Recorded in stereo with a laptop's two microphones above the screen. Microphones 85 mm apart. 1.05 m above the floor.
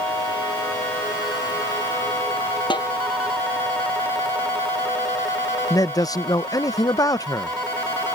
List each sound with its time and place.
2.7 s a snare drum: 70° left (ahead or behind)
5.7 s a man speaking: 45° left (ahead or behind)